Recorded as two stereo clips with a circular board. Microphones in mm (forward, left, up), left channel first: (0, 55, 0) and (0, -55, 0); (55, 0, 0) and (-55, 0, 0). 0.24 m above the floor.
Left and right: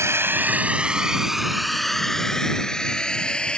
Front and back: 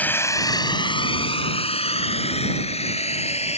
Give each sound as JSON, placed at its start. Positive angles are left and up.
{"t": 0.0, "sound": "a drone", "azimuth_deg": -60}